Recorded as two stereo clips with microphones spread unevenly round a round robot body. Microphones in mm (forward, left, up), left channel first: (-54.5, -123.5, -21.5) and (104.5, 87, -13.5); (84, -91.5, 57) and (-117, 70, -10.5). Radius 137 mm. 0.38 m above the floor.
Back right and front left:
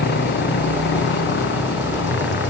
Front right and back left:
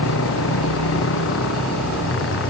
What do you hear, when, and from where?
0.0 s a motorcycle: 75° right; by 2.5 s 80° right